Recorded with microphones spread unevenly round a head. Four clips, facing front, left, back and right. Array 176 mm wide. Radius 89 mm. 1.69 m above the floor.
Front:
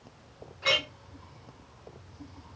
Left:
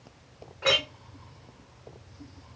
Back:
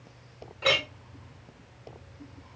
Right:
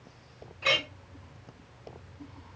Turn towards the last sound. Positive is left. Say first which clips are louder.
# left 3 dB, back 3 dB
turn(degrees=125)